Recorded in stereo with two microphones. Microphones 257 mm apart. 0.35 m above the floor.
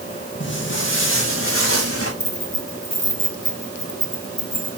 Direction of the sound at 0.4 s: 45° left (ahead or behind).